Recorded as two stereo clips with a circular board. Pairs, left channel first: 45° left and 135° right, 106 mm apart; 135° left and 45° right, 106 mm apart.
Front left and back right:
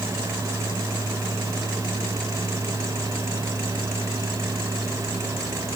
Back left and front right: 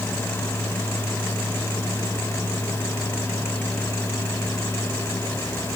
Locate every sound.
Only background noise.